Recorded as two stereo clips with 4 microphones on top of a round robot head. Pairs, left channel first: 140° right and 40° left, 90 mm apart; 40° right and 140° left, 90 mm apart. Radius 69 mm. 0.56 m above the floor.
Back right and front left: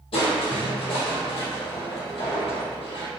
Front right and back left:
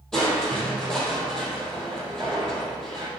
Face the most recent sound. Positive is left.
turn(degrees=-120)